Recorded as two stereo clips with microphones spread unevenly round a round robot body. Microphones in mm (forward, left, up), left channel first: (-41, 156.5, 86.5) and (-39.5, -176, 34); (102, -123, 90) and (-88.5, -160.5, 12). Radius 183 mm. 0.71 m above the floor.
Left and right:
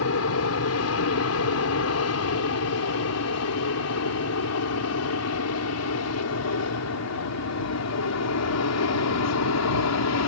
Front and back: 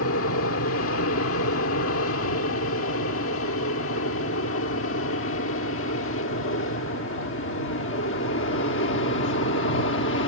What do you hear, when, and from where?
0.0 s an aircraft: 40° left; by 10.3 s 50° left